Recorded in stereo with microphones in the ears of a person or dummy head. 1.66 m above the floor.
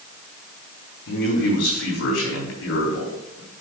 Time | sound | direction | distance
1.1 | a man speaking | 75° left (ahead or behind) | 3.5 m